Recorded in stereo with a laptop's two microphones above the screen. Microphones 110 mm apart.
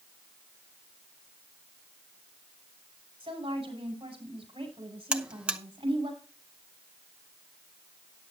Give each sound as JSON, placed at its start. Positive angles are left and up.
{"t": 3.2, "sound": "a woman speaking", "side_deg": -55, "distance_m": 6.0}
{"t": 5.1, "sound": "a buzzer", "side_deg": -10, "distance_m": 0.7}